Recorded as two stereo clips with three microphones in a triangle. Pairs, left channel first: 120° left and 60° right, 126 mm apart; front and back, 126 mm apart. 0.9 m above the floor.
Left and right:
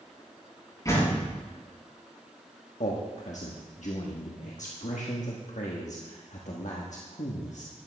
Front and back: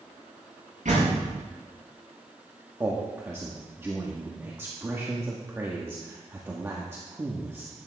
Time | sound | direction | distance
0.8 | a door slam | straight behind | 6.5 m
2.8 | a man speaking | 110° left | 1.3 m